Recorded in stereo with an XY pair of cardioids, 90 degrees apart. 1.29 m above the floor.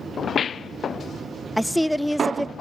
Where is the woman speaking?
Straight ahead, 0.6 m.